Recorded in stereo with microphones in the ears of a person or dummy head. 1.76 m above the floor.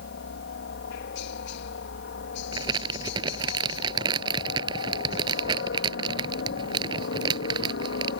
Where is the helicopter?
60° left (ahead or behind).